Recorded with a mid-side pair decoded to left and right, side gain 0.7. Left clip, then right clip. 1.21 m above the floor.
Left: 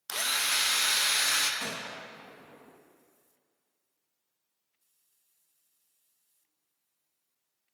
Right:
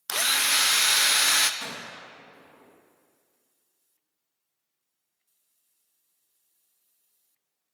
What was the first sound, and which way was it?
A drill, 30° right.